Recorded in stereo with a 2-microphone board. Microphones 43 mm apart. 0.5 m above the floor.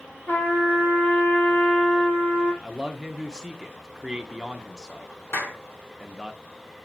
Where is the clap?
75° left (ahead or behind), 3 m.